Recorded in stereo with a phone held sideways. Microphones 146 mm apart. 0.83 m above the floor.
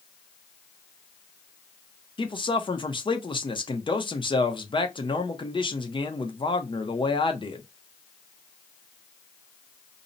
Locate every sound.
2.2 s a man speaking: 35° left (ahead or behind), 0.6 m